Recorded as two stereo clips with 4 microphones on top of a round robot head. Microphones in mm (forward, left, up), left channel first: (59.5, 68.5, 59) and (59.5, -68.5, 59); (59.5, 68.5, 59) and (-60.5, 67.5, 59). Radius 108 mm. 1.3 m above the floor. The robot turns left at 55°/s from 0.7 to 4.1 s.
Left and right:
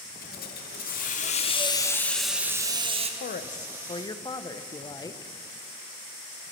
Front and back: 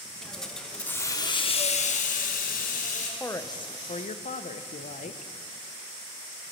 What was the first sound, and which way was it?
A hiss, 85° left.